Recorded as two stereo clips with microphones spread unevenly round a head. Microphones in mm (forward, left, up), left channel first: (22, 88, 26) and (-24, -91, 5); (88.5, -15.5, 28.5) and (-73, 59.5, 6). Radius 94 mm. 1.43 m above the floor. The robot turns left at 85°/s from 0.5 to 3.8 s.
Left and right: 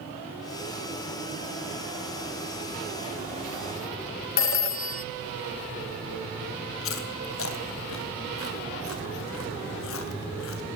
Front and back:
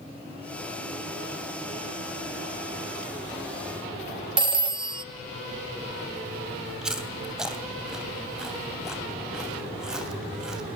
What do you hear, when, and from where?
4.4 s a phone ringing: 90° left, 1.0 m
6.8 s chewing: 65° left, 3 m